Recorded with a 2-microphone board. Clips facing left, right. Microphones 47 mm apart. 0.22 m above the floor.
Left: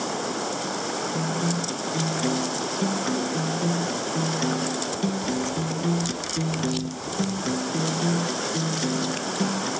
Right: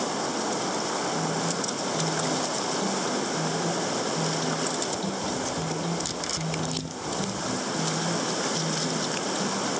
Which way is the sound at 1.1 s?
50° left (ahead or behind).